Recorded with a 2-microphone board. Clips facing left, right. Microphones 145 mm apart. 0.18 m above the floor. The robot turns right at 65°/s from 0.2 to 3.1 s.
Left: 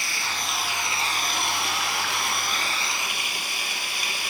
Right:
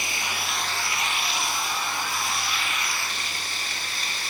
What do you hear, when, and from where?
0.0 s running water: 20° right, 1.8 m; by 4.3 s 170° left, 1.8 m